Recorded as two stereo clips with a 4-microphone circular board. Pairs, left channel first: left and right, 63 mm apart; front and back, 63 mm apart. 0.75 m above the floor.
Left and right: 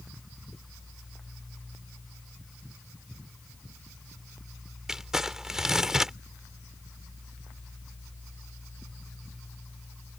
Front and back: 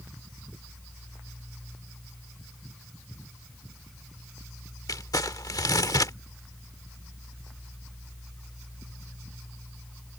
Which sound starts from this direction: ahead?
Crumpling, at 4.9 s.